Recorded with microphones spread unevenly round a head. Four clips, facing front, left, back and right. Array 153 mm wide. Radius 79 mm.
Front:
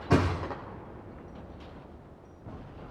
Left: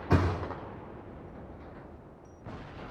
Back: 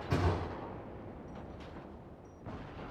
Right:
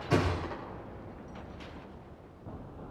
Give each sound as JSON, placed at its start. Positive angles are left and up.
{"t": 0.1, "sound": "a thud", "azimuth_deg": 35, "distance_m": 6.5}